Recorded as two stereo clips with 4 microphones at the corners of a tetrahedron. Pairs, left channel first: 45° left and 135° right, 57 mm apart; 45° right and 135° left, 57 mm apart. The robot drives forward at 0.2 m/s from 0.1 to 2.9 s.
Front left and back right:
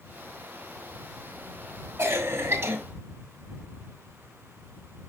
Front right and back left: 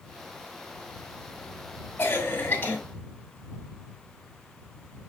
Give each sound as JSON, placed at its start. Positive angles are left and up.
{"t": 2.0, "sound": "a cough", "azimuth_deg": -105, "distance_m": 2.5}